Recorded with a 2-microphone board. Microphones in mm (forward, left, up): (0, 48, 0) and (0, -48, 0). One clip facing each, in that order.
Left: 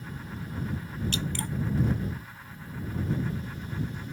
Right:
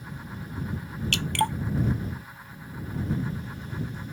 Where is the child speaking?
No child speaking in this recording.